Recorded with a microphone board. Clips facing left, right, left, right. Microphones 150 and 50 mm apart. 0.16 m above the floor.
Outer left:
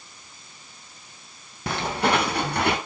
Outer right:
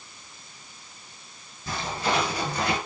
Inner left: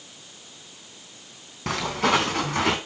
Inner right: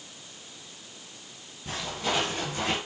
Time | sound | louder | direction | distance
1.7 | footsteps | outer left 5 dB, inner left 8 dB | 75° left (ahead or behind) | 2.5 m